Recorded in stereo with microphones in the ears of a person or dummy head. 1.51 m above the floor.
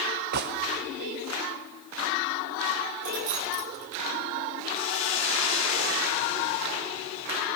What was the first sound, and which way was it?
A gunshot, 55° right (ahead or behind).